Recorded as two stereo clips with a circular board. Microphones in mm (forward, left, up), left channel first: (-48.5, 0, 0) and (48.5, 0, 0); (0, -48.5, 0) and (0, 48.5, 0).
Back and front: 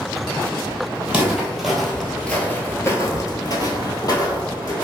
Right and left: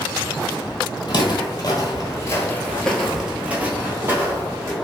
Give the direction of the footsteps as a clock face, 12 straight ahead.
3 o'clock.